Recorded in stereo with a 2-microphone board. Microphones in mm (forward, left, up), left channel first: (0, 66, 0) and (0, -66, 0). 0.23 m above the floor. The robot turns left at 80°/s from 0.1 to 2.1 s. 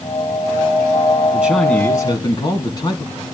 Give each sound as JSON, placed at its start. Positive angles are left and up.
{"t": 1.3, "sound": "a man speaking", "azimuth_deg": -160, "distance_m": 2.5}